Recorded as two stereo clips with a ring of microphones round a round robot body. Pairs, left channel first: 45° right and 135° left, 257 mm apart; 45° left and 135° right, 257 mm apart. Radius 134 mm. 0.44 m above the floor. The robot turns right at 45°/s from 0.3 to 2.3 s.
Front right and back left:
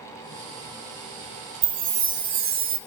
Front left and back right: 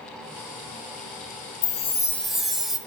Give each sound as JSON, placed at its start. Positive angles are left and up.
{"t": 1.6, "sound": "a chime", "azimuth_deg": 105, "distance_m": 0.5}